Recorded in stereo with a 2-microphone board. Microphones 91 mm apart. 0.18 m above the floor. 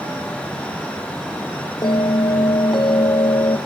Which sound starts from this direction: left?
A bell, at 1.8 s.